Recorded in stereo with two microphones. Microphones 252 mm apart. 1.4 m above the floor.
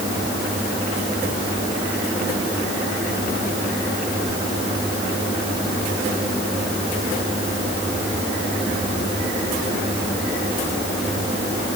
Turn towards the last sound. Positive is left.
No sound to turn to.